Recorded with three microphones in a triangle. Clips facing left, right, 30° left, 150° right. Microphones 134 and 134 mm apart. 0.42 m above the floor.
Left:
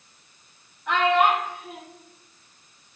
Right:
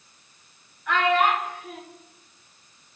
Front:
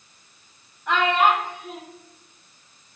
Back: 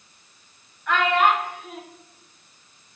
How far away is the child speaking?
About 0.9 m.